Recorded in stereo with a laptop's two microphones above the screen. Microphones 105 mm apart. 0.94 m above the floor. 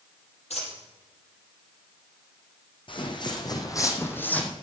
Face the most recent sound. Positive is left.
turn(degrees=10)  # may be behind; listen again after turning